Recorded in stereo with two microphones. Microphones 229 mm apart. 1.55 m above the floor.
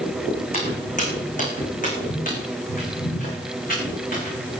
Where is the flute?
No flute in this recording.